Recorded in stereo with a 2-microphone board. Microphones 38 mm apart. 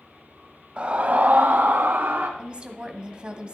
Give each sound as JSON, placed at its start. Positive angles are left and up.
{"t": 0.8, "sound": "a scream", "side_deg": -30, "distance_m": 1.0}
{"t": 2.4, "sound": "a woman speaking", "side_deg": -25, "distance_m": 1.3}